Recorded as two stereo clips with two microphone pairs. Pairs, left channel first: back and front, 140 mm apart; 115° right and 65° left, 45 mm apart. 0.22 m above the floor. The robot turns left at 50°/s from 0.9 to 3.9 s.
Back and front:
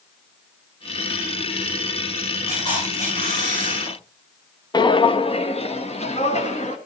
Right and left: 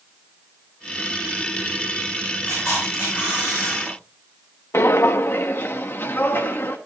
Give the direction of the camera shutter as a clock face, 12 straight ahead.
4 o'clock.